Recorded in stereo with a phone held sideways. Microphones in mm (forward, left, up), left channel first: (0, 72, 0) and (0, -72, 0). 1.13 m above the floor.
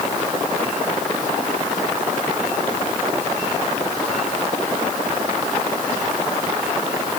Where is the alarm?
I don't hear an alarm.